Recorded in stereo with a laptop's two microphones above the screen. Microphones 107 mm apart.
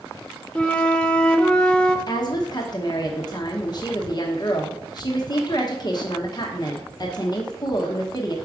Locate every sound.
0.6 s a flute: 10° left (ahead or behind), 0.7 m
2.1 s a woman speaking: 40° left (ahead or behind), 1.0 m